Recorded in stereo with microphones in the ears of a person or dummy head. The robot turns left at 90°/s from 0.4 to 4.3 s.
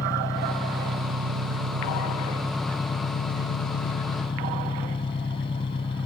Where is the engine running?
20° left; by 6.0 s 30° left.